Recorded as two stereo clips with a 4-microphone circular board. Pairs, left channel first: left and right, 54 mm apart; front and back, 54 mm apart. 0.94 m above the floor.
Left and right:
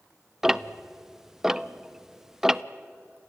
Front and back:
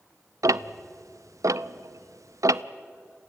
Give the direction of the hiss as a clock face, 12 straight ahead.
I don't hear a hiss.